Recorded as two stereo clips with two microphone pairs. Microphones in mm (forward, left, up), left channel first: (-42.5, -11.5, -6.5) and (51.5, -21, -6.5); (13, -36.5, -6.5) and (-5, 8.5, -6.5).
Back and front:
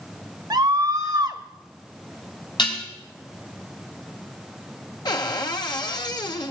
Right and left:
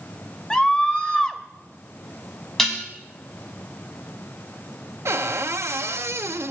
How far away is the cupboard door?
About 0.8 m.